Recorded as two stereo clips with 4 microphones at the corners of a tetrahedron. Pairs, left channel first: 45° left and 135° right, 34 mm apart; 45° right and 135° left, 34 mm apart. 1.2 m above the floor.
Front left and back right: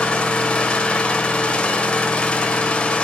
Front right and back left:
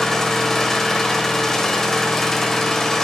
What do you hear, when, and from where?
0.0 s an engine running: 25° left, 1.1 m